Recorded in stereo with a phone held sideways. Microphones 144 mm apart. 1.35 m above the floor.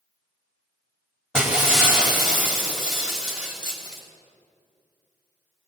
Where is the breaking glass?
5° right (ahead or behind), 5 m.